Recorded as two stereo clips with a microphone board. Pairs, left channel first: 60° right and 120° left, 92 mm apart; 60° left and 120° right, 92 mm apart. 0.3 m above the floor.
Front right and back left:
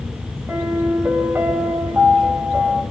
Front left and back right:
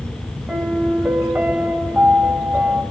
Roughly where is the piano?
Behind.